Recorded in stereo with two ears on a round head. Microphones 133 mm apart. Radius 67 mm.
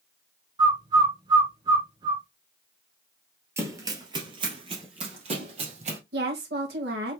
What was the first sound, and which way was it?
A bird, 30° right (ahead or behind).